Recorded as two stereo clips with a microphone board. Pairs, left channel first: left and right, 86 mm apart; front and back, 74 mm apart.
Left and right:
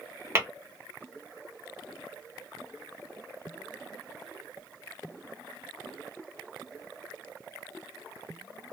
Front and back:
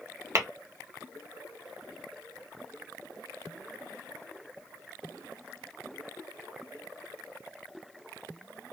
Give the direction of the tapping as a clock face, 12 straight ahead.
5 o'clock.